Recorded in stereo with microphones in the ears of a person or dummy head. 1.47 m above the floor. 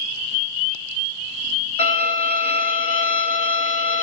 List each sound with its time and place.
1.8 s a violin: 40° left (ahead or behind), 1.5 m